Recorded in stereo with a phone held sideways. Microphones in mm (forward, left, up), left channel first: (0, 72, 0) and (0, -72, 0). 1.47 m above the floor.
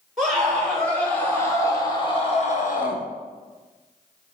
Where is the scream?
Centre (ahead or behind), 4 m; by 3.0 s 75° left (ahead or behind), 1.7 m.